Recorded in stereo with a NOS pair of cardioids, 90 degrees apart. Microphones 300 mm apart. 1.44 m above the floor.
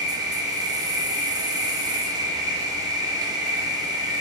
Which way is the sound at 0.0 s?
10° right.